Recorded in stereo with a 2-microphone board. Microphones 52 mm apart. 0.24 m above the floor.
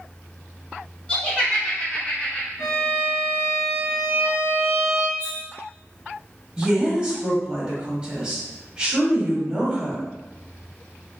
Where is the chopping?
No chopping in this recording.